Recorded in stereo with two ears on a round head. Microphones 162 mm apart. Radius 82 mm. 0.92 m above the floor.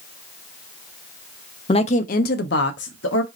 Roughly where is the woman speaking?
Left.